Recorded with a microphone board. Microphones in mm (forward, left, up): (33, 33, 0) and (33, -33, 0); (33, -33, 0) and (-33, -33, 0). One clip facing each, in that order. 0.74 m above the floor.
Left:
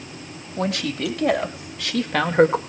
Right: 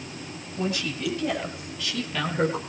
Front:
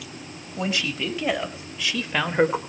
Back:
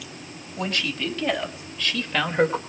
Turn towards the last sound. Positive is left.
turn(degrees=75)